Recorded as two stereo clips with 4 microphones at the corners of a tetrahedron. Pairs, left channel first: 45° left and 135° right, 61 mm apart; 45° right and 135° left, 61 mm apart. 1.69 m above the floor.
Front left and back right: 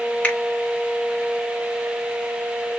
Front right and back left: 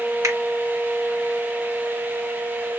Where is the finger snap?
115° left, 1.6 m.